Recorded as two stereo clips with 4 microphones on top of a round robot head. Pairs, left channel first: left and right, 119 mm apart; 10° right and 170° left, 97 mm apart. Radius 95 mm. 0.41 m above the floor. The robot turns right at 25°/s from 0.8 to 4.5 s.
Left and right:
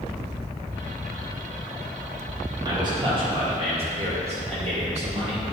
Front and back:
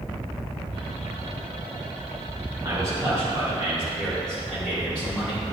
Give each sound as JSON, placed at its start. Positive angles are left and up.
{"t": 2.6, "sound": "a man speaking", "azimuth_deg": -140, "distance_m": 2.5}